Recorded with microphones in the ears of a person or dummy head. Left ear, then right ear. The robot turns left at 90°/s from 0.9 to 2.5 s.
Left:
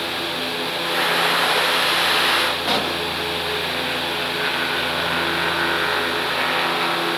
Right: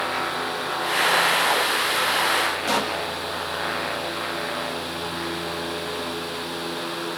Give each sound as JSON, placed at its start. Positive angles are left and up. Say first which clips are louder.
{"t": 2.6, "sound": "a pop", "louder": "left 2 dB", "side_deg": -10, "distance_m": 1.7}